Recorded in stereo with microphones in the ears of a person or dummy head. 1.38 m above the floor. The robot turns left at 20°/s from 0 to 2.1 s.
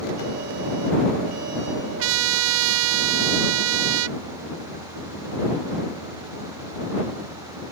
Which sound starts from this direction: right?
A trumpet, at 2.0 s.